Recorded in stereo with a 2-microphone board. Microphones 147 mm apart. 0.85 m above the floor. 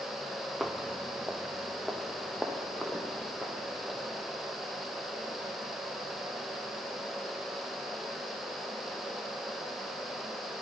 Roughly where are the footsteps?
Centre.